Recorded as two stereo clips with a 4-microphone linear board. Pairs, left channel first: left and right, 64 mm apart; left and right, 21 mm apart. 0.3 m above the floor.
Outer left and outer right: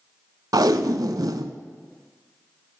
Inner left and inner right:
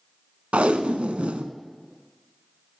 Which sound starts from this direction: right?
Tape being pulled, at 0.5 s.